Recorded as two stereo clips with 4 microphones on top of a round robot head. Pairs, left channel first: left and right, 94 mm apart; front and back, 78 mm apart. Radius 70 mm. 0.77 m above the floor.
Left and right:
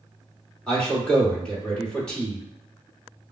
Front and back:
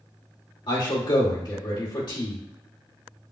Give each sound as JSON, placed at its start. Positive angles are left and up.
{"t": 0.7, "sound": "a man speaking", "azimuth_deg": 10, "distance_m": 1.9}